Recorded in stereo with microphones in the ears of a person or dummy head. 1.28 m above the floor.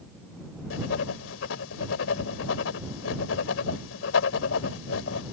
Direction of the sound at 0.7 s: 80° left.